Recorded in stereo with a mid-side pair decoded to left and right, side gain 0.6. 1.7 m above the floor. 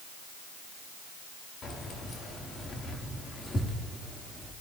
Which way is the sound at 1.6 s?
50° left.